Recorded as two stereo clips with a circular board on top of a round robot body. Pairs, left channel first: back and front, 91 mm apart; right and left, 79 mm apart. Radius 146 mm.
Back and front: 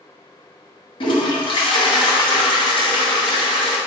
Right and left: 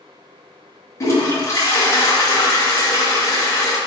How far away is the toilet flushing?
About 2 m.